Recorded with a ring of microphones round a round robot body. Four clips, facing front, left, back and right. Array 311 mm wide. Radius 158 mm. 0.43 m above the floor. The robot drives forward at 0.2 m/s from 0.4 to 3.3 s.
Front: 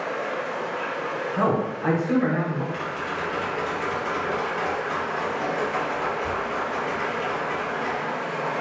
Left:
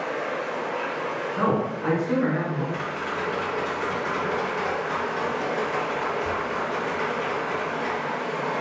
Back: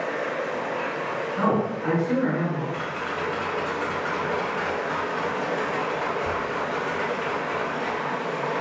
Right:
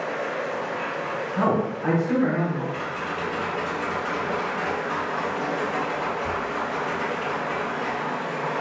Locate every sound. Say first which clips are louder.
0.0 s running water: even, back 1 dB; 165° right, 0.7 m; by 8.6 s 175° right, 1.3 m
1.4 s a man speaking: right 1 dB, even; 25° right, 1.1 m; by 2.6 s 35° right, 0.9 m
2.7 s tapping: even, even; 165° left, 1.9 m; by 8.0 s 170° left, 2.0 m